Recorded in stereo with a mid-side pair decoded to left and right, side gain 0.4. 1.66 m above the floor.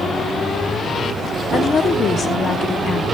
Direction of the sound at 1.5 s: 50° left.